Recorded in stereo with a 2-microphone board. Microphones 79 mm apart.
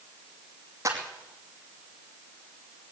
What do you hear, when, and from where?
0.8 s a clap: 40° right (ahead or behind), 5 m